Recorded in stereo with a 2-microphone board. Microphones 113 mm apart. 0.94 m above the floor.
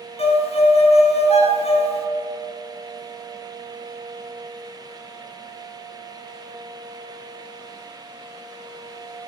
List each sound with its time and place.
0.2 s a violin: 60° left (ahead or behind), 0.7 m